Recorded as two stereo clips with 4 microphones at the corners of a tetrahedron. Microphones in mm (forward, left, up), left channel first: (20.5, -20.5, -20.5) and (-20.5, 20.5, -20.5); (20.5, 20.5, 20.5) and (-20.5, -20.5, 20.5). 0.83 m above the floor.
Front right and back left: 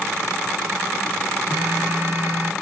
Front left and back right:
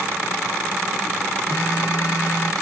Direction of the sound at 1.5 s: 95° left.